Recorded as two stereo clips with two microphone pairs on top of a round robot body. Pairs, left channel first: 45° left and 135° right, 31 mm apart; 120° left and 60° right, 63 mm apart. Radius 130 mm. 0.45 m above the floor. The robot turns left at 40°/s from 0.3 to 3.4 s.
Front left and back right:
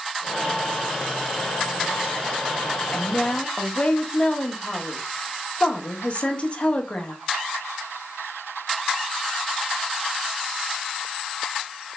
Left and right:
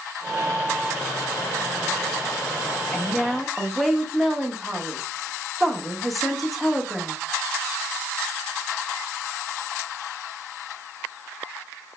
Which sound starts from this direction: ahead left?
A woman speaking, at 2.9 s.